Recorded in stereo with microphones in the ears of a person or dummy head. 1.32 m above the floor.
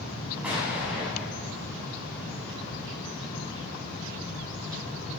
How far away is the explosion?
About 6.5 m.